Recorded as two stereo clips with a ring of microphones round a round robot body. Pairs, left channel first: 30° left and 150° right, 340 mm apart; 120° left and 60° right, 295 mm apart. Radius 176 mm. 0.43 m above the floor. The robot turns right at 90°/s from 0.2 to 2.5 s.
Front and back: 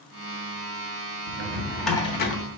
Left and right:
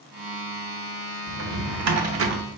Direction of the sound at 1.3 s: 110° right.